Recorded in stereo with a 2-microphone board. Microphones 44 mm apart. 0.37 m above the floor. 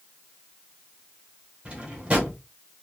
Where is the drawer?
30° right (ahead or behind), 1.2 m.